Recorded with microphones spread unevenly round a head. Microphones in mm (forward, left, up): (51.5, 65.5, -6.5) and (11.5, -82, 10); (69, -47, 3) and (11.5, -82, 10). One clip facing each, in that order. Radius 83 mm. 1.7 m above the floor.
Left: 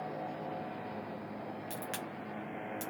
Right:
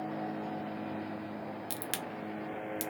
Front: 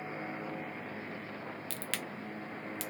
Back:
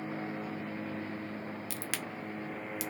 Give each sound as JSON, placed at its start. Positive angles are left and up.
{"t": 1.7, "sound": "a crack", "azimuth_deg": -80, "distance_m": 0.6}